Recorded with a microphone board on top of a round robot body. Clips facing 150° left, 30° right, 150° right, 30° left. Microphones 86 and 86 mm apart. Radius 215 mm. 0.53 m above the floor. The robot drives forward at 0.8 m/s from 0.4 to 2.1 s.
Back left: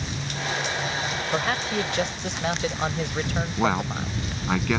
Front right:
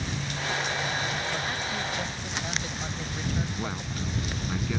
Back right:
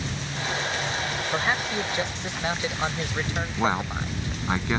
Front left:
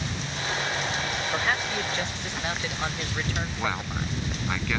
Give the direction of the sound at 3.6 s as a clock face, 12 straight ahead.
7 o'clock.